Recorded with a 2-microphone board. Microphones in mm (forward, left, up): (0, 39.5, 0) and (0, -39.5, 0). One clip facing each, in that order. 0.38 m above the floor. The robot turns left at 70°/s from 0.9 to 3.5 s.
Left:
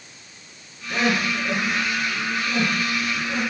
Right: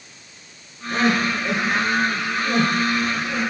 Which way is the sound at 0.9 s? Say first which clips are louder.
Right 3 dB; 5° left (ahead or behind).